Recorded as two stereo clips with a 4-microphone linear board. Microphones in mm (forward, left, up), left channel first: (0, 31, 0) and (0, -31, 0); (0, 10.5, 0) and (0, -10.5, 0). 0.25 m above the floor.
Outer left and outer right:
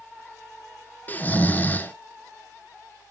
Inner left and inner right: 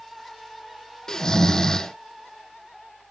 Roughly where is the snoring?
Left.